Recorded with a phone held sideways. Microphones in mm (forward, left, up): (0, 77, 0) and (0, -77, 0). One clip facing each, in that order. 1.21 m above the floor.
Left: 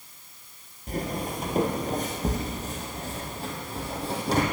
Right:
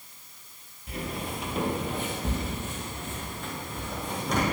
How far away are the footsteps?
About 1.7 m.